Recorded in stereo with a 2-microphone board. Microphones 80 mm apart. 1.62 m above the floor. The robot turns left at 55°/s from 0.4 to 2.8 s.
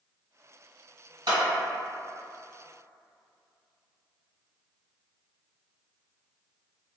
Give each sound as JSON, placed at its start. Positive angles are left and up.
{"t": 1.3, "sound": "a clap", "side_deg": -70, "distance_m": 1.5}